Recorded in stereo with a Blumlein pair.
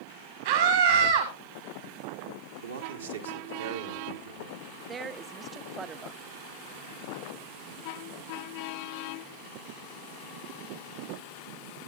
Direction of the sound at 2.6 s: 70° right.